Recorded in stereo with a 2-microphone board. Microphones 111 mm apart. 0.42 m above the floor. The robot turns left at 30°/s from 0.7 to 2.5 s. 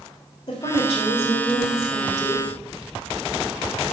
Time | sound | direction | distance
0.5 | a woman speaking | 85° left | 1.5 m